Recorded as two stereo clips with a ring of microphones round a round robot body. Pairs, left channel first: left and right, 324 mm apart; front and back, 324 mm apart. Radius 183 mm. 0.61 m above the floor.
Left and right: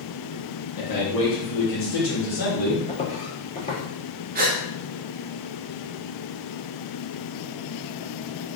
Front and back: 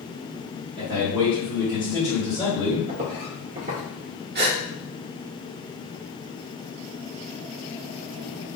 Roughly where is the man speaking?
Left.